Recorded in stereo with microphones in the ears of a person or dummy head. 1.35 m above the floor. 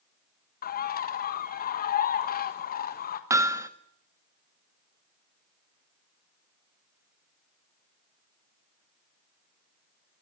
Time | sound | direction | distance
0.6 | a bird | 45° left (ahead or behind) | 1.5 m
3.3 | hammering | 15° right (ahead or behind) | 1.2 m